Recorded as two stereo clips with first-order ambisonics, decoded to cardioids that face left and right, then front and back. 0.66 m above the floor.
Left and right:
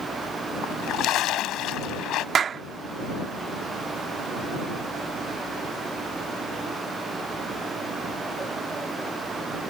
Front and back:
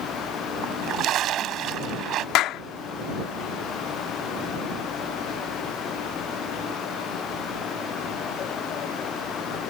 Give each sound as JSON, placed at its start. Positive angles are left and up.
{"t": 0.6, "sound": "a splash", "azimuth_deg": 130}
{"t": 2.4, "sound": "a clap", "azimuth_deg": -30}